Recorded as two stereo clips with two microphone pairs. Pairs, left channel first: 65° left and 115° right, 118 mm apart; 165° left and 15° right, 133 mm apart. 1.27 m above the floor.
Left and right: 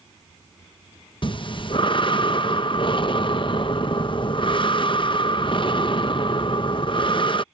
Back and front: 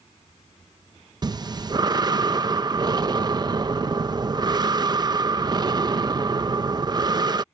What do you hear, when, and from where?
1.2 s breathing: 35° left